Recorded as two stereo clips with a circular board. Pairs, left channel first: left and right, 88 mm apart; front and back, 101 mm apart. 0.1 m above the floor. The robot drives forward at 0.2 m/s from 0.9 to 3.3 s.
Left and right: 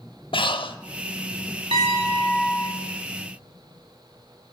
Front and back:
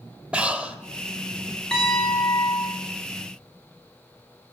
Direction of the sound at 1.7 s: 85° right.